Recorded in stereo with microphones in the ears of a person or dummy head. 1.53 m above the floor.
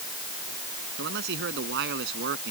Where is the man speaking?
60° right (ahead or behind); by 2.5 s 55° right (ahead or behind).